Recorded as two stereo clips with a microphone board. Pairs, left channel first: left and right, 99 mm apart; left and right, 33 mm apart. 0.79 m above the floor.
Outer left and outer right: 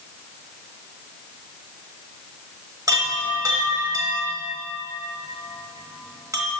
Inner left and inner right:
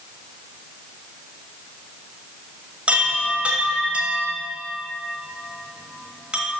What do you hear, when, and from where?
2.9 s a chime: 35° right (ahead or behind), 1.3 m